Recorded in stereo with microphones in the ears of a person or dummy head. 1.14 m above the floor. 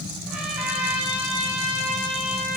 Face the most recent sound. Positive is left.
turn(degrees=-5)  # may be behind; listen again after turning